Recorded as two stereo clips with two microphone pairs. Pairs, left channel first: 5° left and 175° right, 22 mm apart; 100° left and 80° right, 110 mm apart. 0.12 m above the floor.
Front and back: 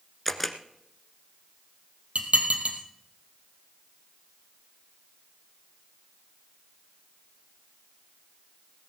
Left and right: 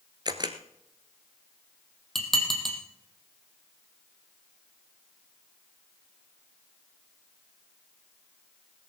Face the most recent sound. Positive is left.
turn(degrees=-170)